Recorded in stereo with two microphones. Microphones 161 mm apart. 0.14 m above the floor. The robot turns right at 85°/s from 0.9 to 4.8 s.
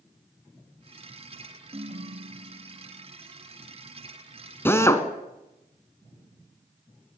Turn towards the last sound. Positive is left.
turn(degrees=15)  # may be behind; listen again after turning